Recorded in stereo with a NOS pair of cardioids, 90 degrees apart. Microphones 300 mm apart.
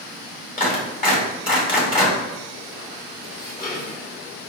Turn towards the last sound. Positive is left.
turn(degrees=30)